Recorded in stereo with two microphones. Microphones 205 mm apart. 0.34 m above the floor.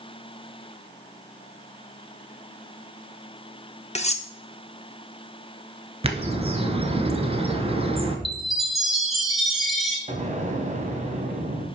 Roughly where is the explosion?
Right.